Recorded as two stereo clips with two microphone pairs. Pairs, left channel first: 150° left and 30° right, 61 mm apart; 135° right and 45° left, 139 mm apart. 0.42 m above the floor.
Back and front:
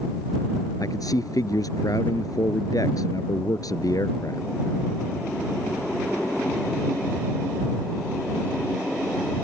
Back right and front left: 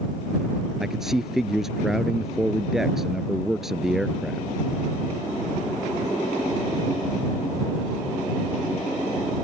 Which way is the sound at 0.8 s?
135° left.